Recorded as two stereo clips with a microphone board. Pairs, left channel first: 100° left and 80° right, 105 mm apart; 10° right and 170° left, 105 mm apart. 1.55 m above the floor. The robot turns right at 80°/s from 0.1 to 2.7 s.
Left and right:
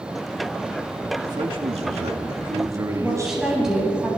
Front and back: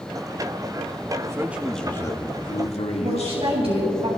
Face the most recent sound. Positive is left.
turn(degrees=-165)